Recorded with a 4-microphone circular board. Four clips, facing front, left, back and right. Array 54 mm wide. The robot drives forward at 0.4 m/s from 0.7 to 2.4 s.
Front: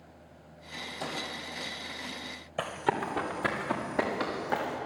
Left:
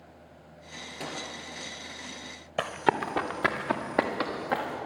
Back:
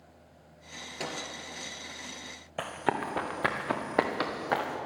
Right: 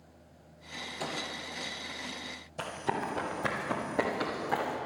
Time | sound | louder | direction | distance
1.0 | a microwave | even, even | 160° left | 2.5 m
2.6 | running footsteps | left 7 dB, front 1 dB | 100° left | 1.8 m